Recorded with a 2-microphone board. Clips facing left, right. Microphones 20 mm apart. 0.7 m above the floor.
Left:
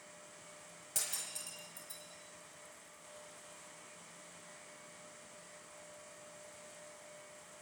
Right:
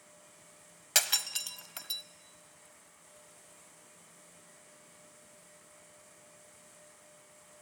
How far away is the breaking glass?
About 1.1 m.